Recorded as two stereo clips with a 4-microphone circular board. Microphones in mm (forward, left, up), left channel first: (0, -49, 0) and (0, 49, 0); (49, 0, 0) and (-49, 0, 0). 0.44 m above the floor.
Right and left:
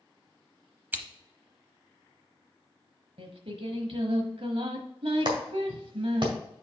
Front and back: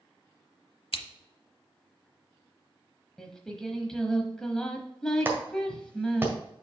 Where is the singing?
85° left, 1.0 m.